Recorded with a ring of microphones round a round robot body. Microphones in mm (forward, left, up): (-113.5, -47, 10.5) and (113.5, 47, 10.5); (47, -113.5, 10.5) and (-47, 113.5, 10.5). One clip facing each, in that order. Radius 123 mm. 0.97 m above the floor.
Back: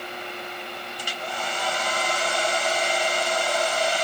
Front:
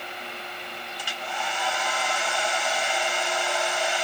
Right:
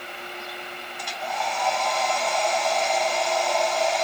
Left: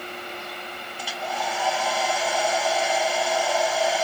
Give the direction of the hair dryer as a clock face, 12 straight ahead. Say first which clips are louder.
Back 2 dB, left 1 dB; 6 o'clock.